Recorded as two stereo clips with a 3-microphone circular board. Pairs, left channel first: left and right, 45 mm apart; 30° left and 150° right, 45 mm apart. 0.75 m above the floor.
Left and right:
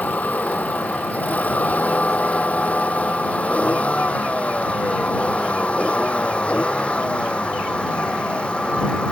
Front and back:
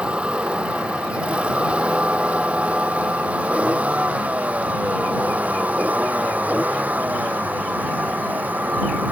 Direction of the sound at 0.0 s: 145° left.